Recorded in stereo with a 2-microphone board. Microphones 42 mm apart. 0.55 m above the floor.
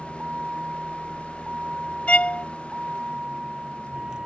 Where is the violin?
30° left (ahead or behind).